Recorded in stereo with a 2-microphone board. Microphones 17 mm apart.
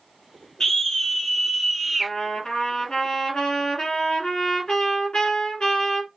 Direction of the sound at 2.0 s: 50° left (ahead or behind).